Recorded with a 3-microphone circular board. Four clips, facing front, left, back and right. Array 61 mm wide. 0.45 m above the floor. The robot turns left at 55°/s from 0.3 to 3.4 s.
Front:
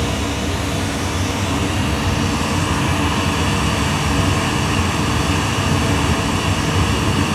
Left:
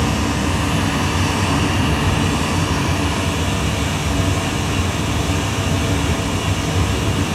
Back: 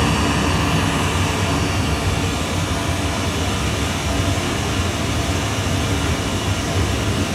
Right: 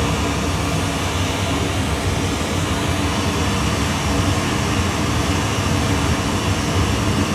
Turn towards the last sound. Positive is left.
turn(degrees=-5)